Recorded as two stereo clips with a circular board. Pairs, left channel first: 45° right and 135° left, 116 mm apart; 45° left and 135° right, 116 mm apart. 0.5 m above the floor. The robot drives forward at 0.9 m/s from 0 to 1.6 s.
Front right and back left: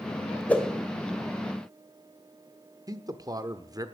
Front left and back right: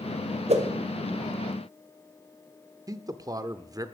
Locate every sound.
0.5 s a whoosh: 125° right, 1.8 m; by 0.7 s 130° right, 1.9 m
2.9 s a man speaking: straight behind, 0.9 m